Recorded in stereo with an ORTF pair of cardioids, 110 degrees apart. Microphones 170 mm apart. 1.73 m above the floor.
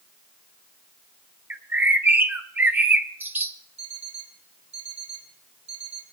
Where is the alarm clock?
45° right, 4.5 m.